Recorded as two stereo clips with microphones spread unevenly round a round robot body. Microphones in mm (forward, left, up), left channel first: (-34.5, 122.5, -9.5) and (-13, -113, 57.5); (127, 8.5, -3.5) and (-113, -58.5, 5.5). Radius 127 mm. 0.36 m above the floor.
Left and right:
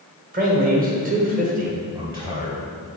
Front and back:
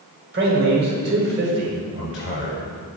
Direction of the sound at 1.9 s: 5° right.